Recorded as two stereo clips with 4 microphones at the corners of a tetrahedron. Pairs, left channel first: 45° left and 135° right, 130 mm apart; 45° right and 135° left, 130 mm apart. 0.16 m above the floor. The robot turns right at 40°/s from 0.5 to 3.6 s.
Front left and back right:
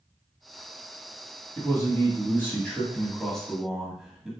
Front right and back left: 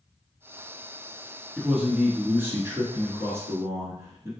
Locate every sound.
1.6 s a man speaking: 60° left, 1.0 m; by 4.3 s 140° left, 1.0 m